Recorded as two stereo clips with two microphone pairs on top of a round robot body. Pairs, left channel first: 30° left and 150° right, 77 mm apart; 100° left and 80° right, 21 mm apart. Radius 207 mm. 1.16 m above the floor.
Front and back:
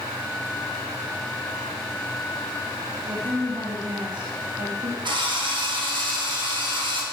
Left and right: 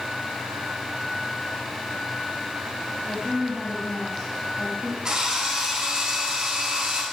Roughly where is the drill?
Behind right.